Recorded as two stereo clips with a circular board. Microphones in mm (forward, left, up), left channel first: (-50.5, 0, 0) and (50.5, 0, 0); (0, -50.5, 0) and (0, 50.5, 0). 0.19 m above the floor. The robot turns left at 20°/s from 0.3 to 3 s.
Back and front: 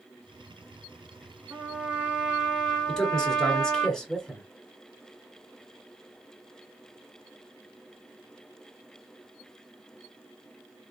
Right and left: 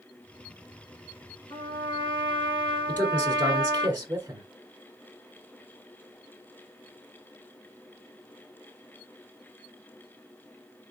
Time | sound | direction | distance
1.5 | a trumpet | 70° right | 2.5 m
2.9 | a man speaking | 100° left | 1.3 m